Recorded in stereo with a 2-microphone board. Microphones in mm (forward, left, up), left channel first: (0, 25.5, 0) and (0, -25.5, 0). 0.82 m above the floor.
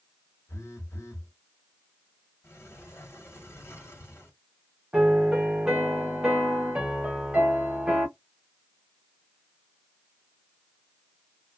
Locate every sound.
0.5 s a phone buzzing: 85° left, 1.0 m
2.4 s a sliding door: 65° left (ahead or behind), 1.3 m
4.9 s a piano: 20° right (ahead or behind), 1.0 m